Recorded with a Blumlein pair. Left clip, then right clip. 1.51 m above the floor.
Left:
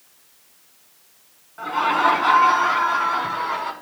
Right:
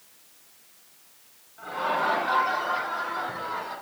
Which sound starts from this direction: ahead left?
Laughter, at 1.6 s.